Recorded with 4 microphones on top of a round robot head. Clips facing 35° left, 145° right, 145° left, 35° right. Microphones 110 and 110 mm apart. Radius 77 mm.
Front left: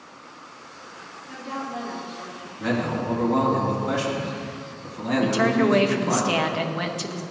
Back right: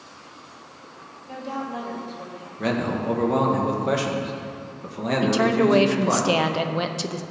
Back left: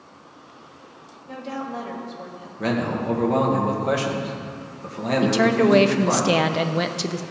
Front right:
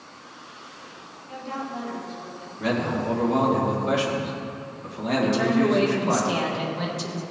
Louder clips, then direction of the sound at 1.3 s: Back right 2 dB, back left 2 dB; 160° left.